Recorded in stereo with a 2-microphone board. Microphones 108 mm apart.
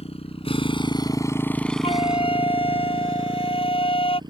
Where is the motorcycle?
70° left (ahead or behind); by 4.3 s 45° right (ahead or behind).